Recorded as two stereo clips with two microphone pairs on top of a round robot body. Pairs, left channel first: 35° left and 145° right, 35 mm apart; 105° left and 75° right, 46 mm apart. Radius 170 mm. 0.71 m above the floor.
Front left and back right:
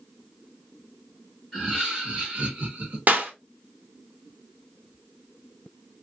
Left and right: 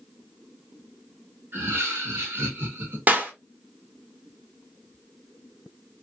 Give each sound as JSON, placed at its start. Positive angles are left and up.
{"t": 1.5, "sound": "laughter", "azimuth_deg": -55, "distance_m": 1.2}
{"t": 3.1, "sound": "a clap", "azimuth_deg": -120, "distance_m": 1.0}